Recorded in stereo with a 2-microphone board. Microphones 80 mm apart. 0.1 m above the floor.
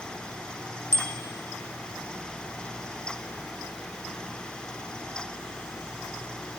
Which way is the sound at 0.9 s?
40° left (ahead or behind).